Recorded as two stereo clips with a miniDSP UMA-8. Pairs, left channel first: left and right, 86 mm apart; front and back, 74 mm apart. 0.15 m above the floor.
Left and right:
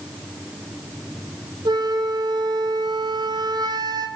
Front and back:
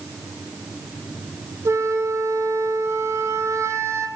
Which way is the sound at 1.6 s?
130° right.